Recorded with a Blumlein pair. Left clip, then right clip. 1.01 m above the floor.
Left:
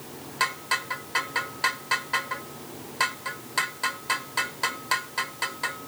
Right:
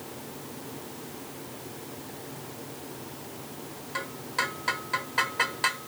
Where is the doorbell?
I don't hear a doorbell.